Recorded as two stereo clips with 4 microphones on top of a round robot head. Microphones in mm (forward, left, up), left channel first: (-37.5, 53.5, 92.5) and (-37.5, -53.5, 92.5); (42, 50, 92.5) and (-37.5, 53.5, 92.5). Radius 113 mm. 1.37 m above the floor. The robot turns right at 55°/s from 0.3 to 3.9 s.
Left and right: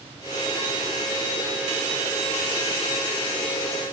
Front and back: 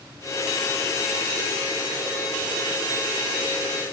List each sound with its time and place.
Only background noise.